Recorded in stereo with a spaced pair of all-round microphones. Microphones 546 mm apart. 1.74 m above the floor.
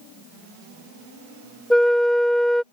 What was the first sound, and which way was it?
A flute, centre (ahead or behind).